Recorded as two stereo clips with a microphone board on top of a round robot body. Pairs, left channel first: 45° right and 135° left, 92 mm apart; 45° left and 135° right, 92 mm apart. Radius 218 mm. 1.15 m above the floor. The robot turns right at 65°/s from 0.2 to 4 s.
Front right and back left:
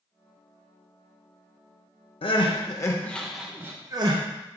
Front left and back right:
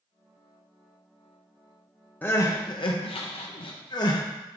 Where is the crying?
25° right, 0.8 m; by 4.2 s 90° left, 0.8 m.